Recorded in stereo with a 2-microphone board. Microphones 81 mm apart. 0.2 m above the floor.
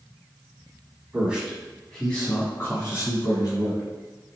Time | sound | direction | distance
1.1 | a man speaking | 15° right (ahead or behind) | 1.4 m